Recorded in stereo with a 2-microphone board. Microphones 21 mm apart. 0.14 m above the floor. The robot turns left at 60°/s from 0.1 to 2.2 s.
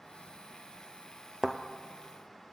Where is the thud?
25° right (ahead or behind), 0.8 m; by 1.6 s 20° right (ahead or behind), 0.8 m.